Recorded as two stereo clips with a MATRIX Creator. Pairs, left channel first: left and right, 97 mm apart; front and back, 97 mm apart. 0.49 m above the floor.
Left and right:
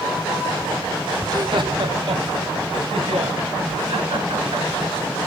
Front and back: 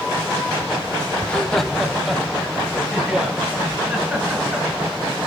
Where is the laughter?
65° right, 0.8 m; by 4.7 s 100° right, 5.5 m.